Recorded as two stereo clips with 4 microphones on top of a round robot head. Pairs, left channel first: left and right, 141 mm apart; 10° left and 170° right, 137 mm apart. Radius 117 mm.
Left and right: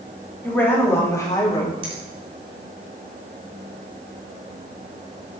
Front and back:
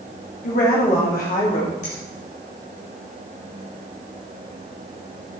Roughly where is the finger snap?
Ahead right.